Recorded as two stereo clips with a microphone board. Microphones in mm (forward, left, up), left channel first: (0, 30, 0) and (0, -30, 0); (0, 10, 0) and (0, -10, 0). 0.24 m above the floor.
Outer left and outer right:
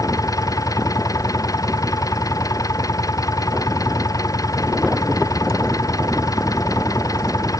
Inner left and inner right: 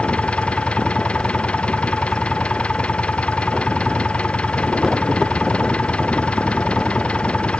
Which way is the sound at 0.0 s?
75° left (ahead or behind).